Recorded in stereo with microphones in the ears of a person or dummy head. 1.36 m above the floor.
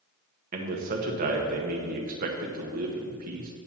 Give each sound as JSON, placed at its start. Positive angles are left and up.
{"t": 0.5, "sound": "a man speaking", "side_deg": -50, "distance_m": 1.3}